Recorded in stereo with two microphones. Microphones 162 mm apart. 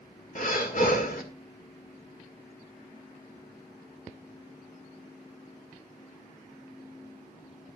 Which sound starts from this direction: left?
Breathing, at 0.3 s.